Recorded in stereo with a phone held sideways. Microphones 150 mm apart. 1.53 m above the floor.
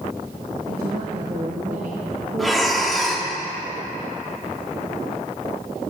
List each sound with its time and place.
0.7 s a woman speaking: 70° right (ahead or behind), 1.5 m; by 3.4 s 30° right (ahead or behind), 3.5 m
2.4 s breathing: centre (ahead or behind), 1.3 m